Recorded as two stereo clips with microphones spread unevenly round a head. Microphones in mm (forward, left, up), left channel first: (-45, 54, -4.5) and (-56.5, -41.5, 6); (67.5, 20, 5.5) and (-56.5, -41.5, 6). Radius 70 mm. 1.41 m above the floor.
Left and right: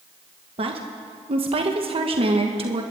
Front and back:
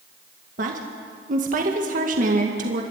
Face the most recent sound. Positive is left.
turn(degrees=-125)